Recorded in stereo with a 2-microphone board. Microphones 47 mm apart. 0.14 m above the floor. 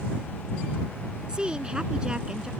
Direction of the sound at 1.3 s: 20° right (ahead or behind).